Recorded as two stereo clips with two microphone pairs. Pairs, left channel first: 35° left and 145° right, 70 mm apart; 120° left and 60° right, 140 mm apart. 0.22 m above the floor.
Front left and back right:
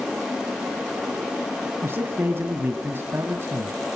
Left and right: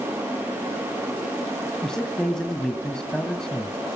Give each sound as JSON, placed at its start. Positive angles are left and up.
{"t": 1.8, "sound": "a man speaking", "azimuth_deg": -155, "distance_m": 1.6}